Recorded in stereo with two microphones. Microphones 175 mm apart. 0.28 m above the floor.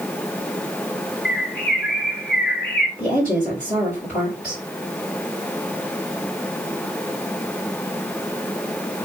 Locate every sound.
1.2 s a bird: 70° left (ahead or behind), 0.9 m
3.0 s a woman speaking: 50° left (ahead or behind), 2 m